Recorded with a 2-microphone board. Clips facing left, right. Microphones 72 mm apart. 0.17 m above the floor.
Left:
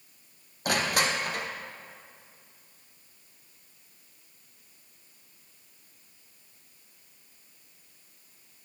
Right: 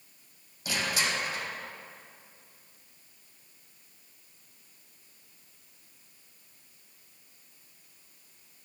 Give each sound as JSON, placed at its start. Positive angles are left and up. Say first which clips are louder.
{"t": 0.7, "sound": "crushing", "louder": "left 4 dB", "side_deg": 55, "distance_m": 1.8}